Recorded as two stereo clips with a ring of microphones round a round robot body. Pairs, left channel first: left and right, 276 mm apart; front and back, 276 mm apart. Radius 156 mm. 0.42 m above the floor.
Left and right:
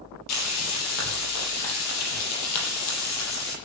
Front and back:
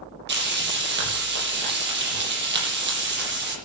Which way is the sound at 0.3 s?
130° left.